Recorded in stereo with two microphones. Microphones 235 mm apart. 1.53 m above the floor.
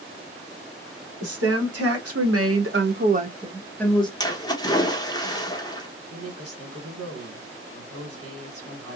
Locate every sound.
1.2 s a woman speaking: 85° right, 1.6 m; by 4.1 s 20° left (ahead or behind), 0.8 m
4.2 s a splash: 15° left (ahead or behind), 0.9 m
6.1 s a woman speaking: 80° right, 1.8 m